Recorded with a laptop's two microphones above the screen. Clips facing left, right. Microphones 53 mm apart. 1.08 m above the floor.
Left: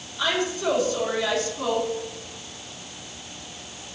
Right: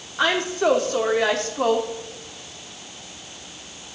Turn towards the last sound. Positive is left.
turn(degrees=-60)  # may be behind; listen again after turning